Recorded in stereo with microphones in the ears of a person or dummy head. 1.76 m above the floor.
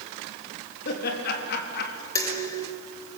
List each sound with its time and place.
0.8 s laughter: 55° left (ahead or behind), 3.5 m
2.1 s dishes clattering: 20° left (ahead or behind), 1.9 m